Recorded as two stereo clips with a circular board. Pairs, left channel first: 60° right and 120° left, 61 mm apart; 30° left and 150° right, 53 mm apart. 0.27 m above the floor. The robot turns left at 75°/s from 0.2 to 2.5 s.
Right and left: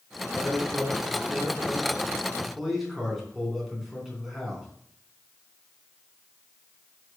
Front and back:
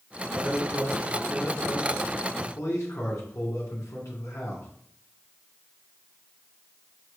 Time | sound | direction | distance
0.3 | a man speaking | 165° right | 3 m